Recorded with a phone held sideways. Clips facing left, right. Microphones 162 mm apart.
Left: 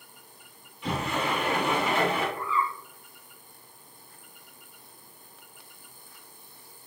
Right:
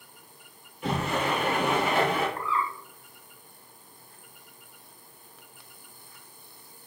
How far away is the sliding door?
About 2.5 m.